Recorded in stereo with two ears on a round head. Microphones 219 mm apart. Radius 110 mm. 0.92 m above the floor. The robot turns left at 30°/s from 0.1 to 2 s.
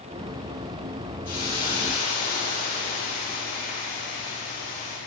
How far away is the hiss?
About 7 m.